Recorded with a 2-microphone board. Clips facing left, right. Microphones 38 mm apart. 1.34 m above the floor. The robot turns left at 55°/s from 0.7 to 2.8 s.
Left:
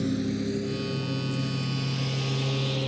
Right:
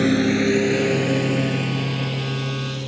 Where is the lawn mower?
60° right (ahead or behind); by 2.9 s 15° left (ahead or behind).